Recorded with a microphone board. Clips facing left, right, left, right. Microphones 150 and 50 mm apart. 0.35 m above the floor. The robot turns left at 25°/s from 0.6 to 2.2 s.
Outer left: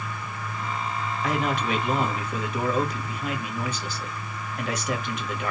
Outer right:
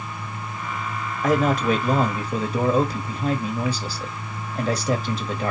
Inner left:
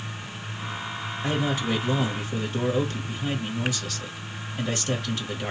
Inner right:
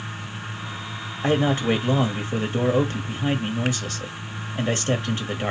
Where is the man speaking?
45° right (ahead or behind), 1.4 m; by 5.5 s 35° right (ahead or behind), 1.4 m.